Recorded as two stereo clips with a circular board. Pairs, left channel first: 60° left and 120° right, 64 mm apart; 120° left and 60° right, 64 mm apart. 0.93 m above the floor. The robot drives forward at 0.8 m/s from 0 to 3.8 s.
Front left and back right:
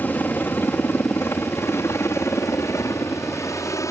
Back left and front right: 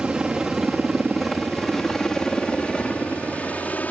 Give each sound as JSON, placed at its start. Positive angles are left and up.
{"t": 0.0, "sound": "a helicopter", "azimuth_deg": 15}